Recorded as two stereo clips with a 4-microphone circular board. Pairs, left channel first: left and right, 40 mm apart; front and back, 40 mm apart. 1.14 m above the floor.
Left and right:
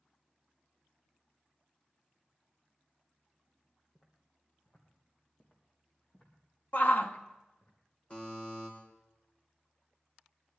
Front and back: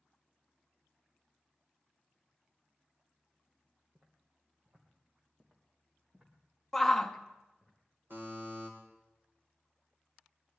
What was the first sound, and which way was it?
Footsteps, 135° left.